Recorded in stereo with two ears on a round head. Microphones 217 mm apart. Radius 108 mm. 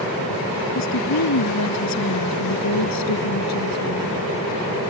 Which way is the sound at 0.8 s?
75° left (ahead or behind).